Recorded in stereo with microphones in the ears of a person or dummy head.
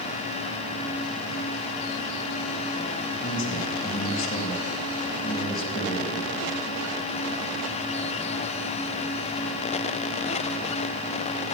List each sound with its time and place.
3.2 s a man speaking: 30° left (ahead or behind), 2.5 m